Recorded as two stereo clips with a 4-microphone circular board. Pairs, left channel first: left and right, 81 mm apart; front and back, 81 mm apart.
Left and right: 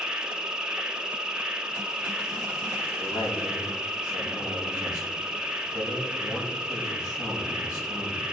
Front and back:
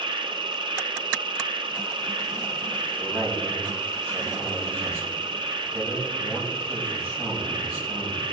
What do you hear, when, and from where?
0.0 s an insect: 170° right, 0.8 m
3.0 s a man speaking: 115° left, 6 m